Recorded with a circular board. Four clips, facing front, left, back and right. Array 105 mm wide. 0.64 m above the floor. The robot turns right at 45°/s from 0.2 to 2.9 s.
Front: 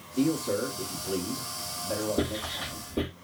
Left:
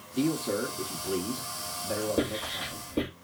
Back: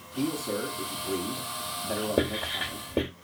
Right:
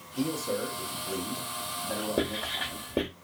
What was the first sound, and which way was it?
A man speaking, 90° left.